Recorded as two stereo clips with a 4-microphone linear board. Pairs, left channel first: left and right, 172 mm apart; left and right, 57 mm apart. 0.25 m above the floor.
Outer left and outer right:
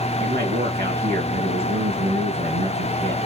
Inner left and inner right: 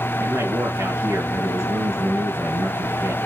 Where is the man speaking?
70° right (ahead or behind), 4 m.